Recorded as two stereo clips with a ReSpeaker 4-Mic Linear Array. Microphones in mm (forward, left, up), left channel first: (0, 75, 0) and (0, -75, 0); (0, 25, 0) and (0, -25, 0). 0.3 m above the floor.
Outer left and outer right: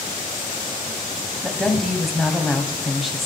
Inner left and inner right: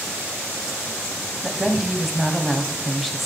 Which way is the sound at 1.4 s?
Centre (ahead or behind).